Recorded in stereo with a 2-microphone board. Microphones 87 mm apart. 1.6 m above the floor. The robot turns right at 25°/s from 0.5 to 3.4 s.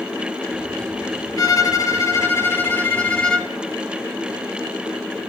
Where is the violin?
120° left, 1.3 m; by 3.5 s 170° left, 1.3 m.